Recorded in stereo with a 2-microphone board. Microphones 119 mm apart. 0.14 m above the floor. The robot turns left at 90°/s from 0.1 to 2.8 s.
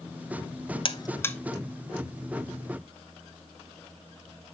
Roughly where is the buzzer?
Left.